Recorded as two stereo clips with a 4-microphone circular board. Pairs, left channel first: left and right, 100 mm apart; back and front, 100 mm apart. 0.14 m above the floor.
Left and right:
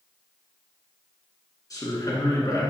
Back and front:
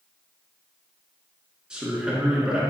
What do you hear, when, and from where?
1.7 s a man speaking: 75° left, 2.0 m